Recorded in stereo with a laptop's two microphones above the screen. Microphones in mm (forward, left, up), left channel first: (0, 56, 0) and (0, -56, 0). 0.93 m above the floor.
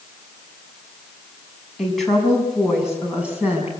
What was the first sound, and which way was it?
A woman speaking, 5° left (ahead or behind).